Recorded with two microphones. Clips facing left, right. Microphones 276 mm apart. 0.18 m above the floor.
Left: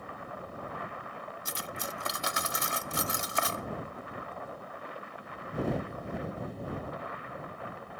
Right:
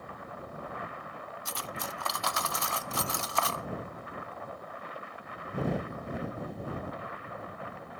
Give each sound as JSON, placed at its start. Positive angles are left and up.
{"t": 1.4, "sound": "cutlery clinking", "side_deg": 20}